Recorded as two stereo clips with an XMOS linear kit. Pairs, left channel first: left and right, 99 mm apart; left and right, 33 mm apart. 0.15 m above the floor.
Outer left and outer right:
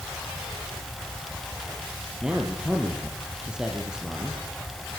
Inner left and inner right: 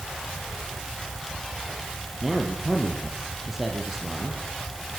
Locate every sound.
2.2 s a man speaking: 10° right (ahead or behind), 4 m